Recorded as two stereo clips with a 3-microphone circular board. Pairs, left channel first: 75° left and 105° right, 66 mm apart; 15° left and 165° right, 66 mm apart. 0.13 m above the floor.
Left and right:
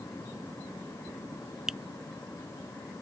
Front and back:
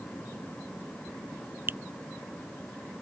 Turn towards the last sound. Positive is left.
turn(degrees=180)